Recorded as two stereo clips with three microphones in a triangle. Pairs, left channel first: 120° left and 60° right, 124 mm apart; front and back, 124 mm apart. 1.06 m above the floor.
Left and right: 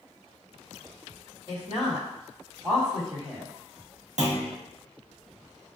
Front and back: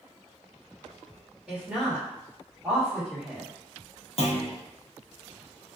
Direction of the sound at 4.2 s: 35° right.